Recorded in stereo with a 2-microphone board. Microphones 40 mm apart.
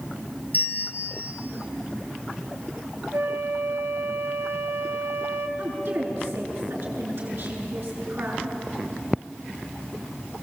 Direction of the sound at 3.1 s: 70° right (ahead or behind).